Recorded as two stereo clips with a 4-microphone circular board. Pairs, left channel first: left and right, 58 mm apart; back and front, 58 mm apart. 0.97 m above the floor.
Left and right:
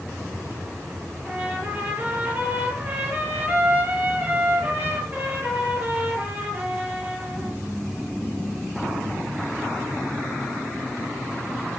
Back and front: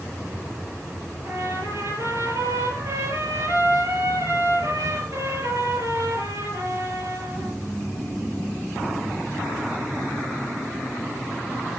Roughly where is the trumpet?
Ahead right.